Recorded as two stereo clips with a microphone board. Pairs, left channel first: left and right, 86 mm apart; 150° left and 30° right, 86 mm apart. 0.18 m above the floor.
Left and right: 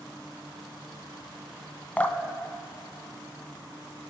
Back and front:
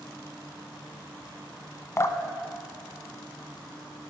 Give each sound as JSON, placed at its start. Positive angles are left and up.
{"t": 2.0, "sound": "dripping", "azimuth_deg": 150, "distance_m": 0.6}